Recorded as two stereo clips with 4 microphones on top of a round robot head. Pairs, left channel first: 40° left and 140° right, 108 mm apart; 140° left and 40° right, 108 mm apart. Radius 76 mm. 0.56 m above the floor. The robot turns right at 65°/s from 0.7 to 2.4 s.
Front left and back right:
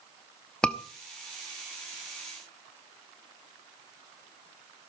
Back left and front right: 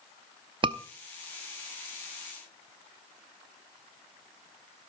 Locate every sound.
0.6 s a scream: 40° right, 0.8 m; by 0.8 s 30° right, 0.8 m